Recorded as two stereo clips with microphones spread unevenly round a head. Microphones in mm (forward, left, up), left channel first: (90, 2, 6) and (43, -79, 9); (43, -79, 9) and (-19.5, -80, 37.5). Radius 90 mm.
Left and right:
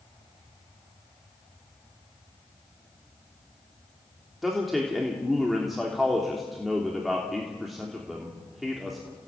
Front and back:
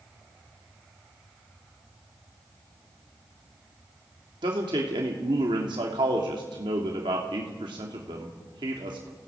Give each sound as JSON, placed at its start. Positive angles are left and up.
{"t": 4.4, "sound": "a man speaking", "azimuth_deg": 150, "distance_m": 3.0}